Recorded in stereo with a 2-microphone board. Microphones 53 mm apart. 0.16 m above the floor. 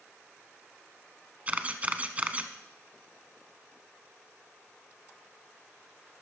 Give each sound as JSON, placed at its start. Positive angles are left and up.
{"t": 1.5, "sound": "a camera shutter", "side_deg": -30, "distance_m": 0.8}